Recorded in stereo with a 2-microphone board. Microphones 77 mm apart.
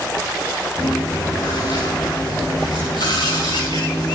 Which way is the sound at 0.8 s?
70° left (ahead or behind).